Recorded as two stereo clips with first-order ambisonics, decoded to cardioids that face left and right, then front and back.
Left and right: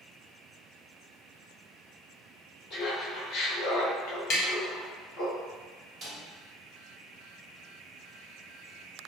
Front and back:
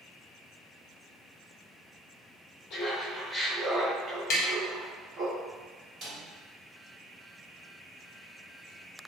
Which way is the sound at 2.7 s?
45° left.